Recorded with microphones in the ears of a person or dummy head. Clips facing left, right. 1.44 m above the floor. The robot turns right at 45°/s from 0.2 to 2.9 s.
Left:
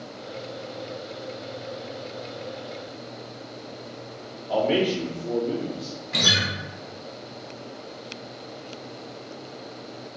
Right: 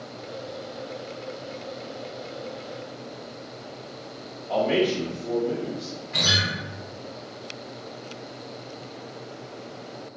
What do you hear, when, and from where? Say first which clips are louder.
4.5 s a man speaking: even; 5° left (ahead or behind), 0.7 m
6.1 s a guitar: left 2 dB; 55° left (ahead or behind), 0.7 m